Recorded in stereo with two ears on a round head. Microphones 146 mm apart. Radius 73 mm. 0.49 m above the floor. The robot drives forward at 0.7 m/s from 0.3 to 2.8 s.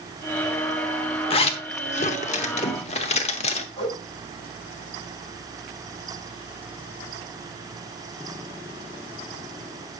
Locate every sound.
1.3 s a zipper: 35° left (ahead or behind), 1.1 m; by 3.7 s 40° left (ahead or behind), 1.0 m
3.8 s a whoosh: 35° left (ahead or behind), 7.5 m